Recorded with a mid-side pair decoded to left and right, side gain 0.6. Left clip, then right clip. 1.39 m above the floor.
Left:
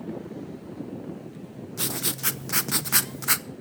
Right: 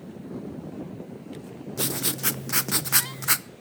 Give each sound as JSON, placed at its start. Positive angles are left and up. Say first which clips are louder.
{"t": 1.8, "sound": "writing", "louder": "right 1 dB", "azimuth_deg": 0, "distance_m": 0.7}